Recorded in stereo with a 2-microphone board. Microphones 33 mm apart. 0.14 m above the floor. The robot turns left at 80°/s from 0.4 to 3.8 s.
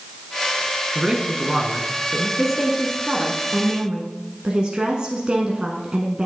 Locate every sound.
0.9 s a man speaking: 25° right (ahead or behind), 1.1 m; by 2.3 s 15° left (ahead or behind), 1.1 m
2.4 s a woman speaking: centre (ahead or behind), 1.1 m; by 6.3 s 25° right (ahead or behind), 1.1 m